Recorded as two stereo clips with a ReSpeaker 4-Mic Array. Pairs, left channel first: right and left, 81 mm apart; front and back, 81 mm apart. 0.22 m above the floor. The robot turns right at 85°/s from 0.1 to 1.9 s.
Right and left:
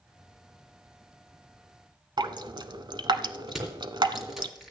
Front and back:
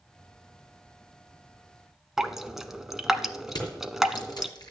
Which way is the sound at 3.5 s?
5° left.